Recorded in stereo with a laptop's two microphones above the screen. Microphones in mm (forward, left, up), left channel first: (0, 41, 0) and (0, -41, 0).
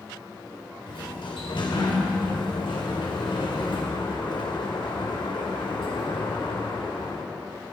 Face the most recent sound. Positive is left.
turn(degrees=75)  # may be behind; listen again after turning